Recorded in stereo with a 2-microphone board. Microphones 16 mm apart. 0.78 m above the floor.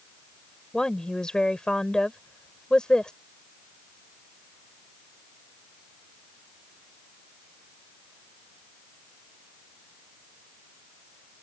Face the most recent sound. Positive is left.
turn(degrees=50)  # may be behind; listen again after turning